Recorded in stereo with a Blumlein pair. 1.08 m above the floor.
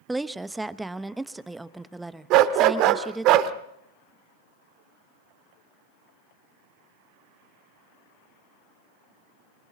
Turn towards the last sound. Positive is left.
turn(degrees=-40)